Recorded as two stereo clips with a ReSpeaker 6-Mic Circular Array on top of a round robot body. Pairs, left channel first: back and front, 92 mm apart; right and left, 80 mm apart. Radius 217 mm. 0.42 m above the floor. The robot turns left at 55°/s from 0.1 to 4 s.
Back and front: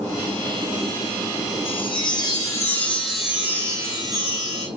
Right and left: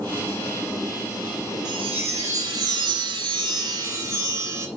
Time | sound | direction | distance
1.6 | a chime | 170° left | 2.5 m